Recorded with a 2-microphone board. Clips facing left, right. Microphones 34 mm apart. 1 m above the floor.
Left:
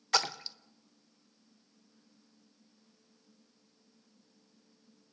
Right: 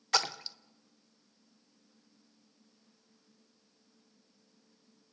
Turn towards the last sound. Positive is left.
turn(degrees=0)  # may be behind; listen again after turning